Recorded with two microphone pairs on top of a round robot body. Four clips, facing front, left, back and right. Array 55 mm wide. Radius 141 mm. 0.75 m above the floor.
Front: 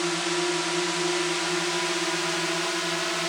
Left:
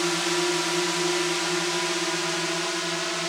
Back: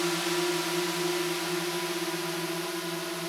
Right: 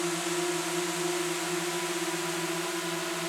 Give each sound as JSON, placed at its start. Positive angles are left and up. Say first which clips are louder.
{"t": 0.0, "sound": "a drone", "louder": "left 5 dB, front 2 dB", "azimuth_deg": 80}